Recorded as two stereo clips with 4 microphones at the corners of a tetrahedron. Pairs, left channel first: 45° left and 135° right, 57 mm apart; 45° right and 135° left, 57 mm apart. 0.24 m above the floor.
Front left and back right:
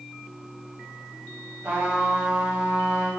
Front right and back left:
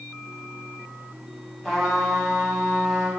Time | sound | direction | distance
1.6 | a trumpet | 125° right | 1.0 m